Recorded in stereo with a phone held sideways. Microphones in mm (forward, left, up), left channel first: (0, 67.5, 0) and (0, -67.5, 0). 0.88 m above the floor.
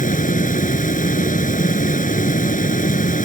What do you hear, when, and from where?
0.0 s a fan: 85° left